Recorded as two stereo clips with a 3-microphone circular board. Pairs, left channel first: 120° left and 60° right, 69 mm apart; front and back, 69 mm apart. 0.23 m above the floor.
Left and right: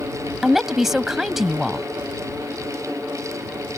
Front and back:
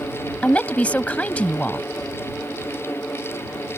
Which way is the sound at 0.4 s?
20° left.